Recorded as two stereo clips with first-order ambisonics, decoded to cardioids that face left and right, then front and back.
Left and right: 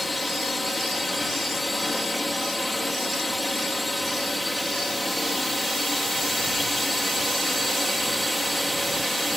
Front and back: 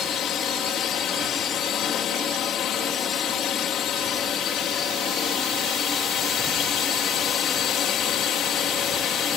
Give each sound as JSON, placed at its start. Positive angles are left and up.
{"t": 0.0, "sound": "a drone", "azimuth_deg": 15}